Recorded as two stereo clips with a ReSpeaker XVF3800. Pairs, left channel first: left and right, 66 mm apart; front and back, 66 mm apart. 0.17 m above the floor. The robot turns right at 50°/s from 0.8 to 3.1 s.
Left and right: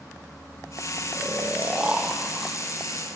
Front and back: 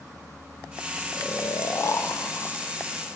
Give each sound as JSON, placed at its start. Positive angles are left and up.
{"t": 1.1, "sound": "snoring", "azimuth_deg": -55, "distance_m": 1.0}